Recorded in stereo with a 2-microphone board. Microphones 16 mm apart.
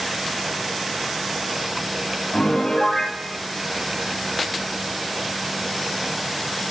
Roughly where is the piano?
Left.